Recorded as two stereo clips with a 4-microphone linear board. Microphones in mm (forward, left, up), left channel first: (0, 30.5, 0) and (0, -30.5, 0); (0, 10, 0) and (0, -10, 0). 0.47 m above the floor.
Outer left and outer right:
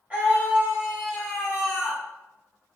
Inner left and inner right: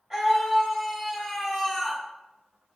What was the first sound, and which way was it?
A scream, 25° right (ahead or behind).